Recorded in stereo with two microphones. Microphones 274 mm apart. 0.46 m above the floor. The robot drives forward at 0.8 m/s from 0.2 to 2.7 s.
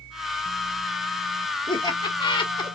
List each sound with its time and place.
1.7 s laughter: 15° left (ahead or behind), 1.2 m